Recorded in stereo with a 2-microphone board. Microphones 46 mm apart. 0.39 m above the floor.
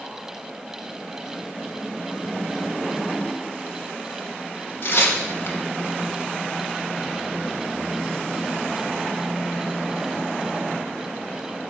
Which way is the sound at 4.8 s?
55° left (ahead or behind).